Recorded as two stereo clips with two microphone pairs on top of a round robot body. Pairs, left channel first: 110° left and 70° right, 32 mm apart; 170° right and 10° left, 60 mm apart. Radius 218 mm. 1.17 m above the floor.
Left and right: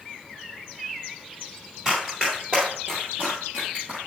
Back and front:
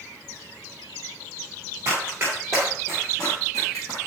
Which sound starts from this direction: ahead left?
Running footsteps, at 1.9 s.